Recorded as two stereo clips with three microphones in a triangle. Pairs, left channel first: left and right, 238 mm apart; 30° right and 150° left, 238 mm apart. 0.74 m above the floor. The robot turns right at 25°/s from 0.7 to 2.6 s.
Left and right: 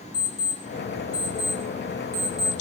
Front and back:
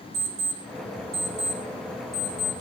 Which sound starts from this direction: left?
An alarm clock, at 0.1 s.